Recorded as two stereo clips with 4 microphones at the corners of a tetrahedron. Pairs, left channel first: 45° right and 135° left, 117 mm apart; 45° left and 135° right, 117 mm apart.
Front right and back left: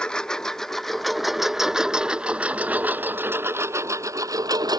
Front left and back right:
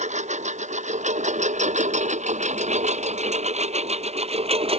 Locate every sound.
0.0 s a lawn mower: 125° right; by 4.8 s 170° right